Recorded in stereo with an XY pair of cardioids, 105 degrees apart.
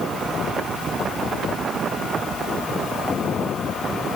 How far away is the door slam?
I don't hear a door slam.